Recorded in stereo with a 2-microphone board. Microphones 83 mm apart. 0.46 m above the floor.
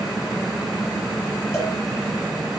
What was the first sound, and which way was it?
A cowbell, 35° left (ahead or behind).